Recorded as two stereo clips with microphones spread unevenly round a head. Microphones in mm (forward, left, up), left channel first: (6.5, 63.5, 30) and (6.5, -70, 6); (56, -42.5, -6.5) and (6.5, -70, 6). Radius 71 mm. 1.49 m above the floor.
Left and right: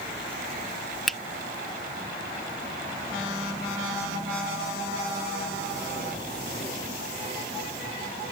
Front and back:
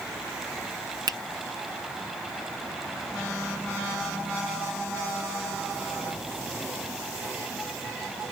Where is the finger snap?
Straight behind.